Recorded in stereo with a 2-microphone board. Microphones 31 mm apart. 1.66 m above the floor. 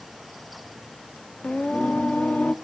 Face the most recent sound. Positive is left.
turn(degrees=60)  # may be behind; listen again after turning